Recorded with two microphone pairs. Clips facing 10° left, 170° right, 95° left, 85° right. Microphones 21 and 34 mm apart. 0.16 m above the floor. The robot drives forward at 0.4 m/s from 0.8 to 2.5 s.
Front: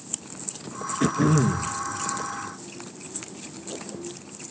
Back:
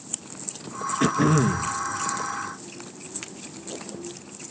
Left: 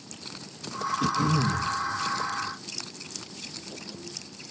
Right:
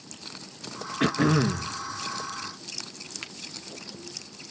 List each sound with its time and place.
1.0 s throat clearing: 100° right, 1.5 m; by 1.7 s 110° right, 1.6 m
3.2 s a finger snap: 100° right, 2 m